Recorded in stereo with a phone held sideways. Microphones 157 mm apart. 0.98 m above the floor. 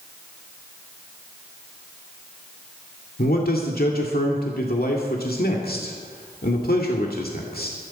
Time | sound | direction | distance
3.2 | a man speaking | 70° left (ahead or behind) | 2 m